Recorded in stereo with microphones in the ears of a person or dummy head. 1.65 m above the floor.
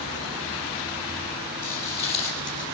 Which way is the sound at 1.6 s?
15° left (ahead or behind).